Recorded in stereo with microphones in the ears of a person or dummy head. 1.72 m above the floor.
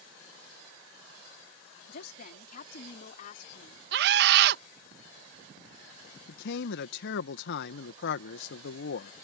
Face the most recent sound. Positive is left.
turn(degrees=65)  # may be behind; listen again after turning